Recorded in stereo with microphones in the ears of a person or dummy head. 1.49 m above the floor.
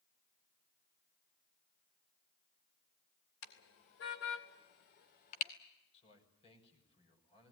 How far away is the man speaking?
About 6.5 m.